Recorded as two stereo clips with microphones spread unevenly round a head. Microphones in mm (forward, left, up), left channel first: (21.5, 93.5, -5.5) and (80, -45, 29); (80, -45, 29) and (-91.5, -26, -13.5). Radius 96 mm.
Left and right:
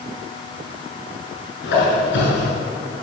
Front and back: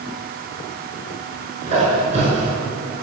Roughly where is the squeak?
Left.